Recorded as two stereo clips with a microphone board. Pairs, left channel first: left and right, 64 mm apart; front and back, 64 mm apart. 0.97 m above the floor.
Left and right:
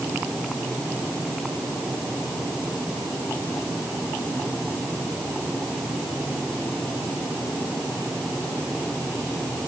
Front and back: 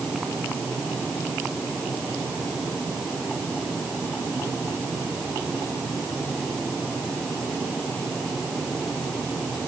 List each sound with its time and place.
Only background noise.